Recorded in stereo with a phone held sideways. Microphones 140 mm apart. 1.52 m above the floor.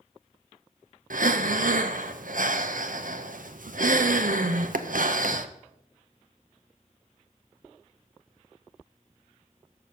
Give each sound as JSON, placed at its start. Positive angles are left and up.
{"t": 1.1, "sound": "breathing", "side_deg": -75, "distance_m": 0.6}